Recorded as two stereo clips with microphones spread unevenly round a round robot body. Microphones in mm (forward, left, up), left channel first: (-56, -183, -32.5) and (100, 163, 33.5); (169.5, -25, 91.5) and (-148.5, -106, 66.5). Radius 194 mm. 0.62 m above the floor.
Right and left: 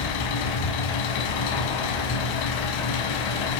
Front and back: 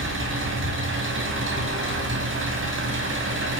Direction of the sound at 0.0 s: 115° right.